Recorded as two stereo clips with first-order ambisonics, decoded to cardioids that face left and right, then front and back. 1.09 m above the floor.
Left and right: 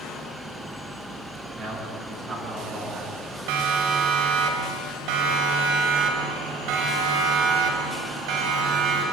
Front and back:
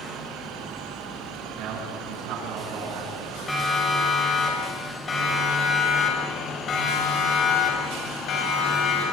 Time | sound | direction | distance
1.6 | a man speaking | 150° right | 9.5 m
3.5 | a siren | 85° right | 5.5 m